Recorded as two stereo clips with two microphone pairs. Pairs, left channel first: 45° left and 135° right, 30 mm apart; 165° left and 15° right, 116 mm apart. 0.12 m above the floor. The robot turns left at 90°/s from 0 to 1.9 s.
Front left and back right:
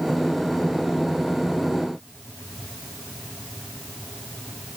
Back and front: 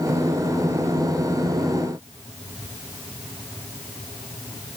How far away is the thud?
No thud in this recording.